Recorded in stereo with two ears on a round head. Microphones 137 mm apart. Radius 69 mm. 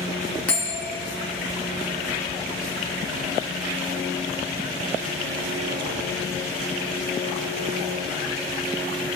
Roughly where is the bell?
Centre.